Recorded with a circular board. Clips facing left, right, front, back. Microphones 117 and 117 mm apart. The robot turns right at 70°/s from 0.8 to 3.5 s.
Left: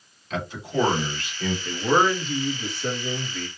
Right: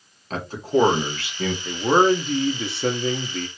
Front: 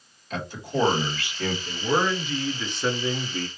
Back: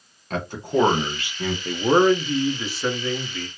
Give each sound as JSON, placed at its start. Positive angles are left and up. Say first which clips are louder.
{"t": 0.3, "sound": "a man speaking", "louder": "right 5 dB, back 6 dB", "azimuth_deg": -140, "distance_m": 1.7}
{"t": 1.6, "sound": "a man speaking", "louder": "right 4 dB, back 9 dB", "azimuth_deg": -170, "distance_m": 0.7}